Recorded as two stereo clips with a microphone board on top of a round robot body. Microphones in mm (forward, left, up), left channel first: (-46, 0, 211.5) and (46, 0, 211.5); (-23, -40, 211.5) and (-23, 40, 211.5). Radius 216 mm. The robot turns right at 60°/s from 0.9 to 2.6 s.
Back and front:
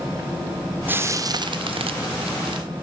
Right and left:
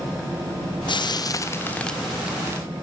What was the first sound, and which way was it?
Frying, 70° right.